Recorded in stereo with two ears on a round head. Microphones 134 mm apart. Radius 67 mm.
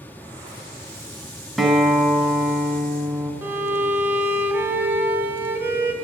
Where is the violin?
15° right (ahead or behind), 0.7 m.